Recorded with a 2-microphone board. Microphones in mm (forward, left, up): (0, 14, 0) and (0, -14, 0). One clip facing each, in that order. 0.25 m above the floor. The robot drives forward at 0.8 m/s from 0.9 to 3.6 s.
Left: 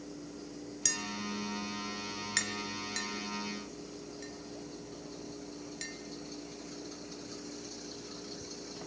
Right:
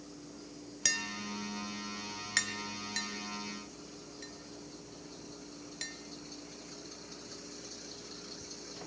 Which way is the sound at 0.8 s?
25° right (ahead or behind).